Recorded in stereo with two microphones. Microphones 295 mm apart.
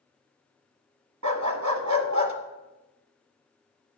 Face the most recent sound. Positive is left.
turn(degrees=-70)  # may be behind; listen again after turning